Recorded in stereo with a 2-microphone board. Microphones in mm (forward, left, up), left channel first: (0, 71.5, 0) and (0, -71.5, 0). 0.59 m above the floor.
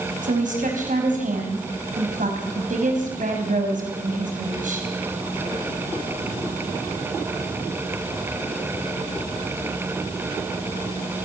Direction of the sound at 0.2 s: 65° right (ahead or behind).